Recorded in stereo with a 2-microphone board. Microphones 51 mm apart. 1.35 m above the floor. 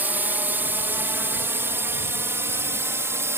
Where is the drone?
35° right (ahead or behind); by 3.4 s 55° right (ahead or behind).